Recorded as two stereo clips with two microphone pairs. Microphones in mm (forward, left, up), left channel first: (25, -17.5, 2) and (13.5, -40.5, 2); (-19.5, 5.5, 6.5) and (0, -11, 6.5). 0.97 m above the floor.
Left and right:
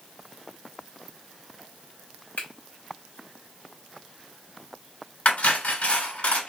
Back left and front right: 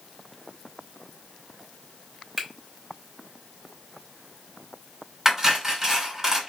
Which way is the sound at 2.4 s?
35° left.